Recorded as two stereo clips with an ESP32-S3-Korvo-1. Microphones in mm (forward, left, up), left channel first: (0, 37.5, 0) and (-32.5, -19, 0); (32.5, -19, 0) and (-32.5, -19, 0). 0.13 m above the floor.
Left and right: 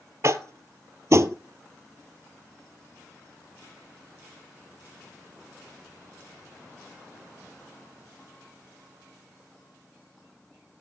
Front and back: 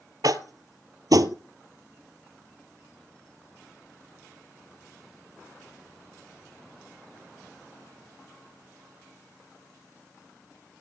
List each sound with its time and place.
0.2 s tapping: 165° right, 0.7 m